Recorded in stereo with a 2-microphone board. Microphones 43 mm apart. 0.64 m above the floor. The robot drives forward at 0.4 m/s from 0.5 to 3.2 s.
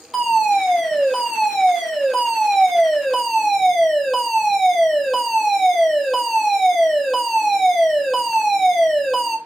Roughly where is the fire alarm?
Centre.